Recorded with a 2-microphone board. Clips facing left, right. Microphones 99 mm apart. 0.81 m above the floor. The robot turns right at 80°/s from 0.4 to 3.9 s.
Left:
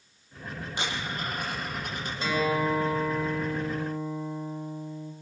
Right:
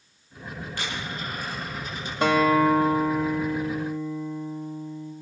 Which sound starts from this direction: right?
A guitar, at 2.2 s.